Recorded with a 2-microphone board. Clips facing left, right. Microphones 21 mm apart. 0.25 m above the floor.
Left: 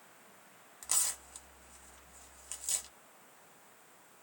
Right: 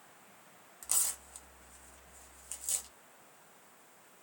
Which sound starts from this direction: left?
Tearing paper, at 0.8 s.